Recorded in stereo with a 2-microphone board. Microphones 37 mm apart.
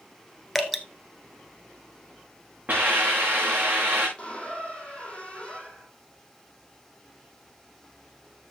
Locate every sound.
0.6 s dripping: centre (ahead or behind), 1.3 m
2.7 s a hiss: 40° right (ahead or behind), 5 m
4.2 s a squeak: 30° left (ahead or behind), 2.5 m